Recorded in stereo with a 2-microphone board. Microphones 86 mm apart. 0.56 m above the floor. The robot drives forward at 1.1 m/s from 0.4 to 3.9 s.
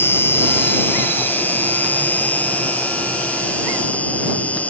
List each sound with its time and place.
0.0 s an insect: 25° left (ahead or behind); by 4.7 s 15° left (ahead or behind)